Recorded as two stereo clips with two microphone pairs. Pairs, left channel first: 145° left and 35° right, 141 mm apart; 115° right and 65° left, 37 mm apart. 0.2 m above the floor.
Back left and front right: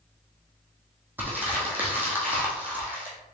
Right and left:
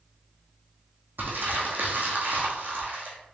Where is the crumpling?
40° left, 1.4 m.